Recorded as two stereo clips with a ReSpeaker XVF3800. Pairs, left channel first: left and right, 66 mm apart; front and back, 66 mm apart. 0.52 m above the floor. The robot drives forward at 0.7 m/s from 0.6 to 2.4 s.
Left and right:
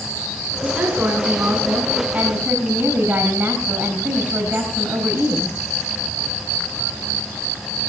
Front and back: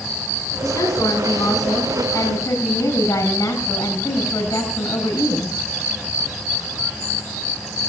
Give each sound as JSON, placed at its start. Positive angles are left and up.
{"t": 0.6, "sound": "a woman speaking", "azimuth_deg": -30, "distance_m": 5.5}